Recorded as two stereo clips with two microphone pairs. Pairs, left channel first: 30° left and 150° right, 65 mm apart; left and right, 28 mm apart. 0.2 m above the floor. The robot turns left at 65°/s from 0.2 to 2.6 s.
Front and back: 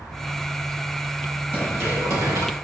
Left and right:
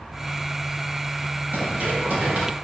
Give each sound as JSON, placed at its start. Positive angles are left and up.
{"t": 1.5, "sound": "running footsteps", "azimuth_deg": -75, "distance_m": 6.0}